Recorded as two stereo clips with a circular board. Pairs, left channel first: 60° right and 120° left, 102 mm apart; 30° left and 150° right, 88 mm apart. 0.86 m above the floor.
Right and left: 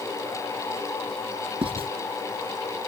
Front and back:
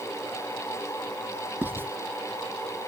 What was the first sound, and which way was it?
Writing, 145° left.